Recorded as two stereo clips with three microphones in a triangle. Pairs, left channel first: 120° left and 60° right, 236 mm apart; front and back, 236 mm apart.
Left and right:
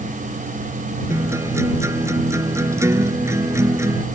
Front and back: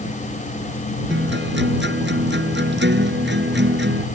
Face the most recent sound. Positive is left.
turn(degrees=-140)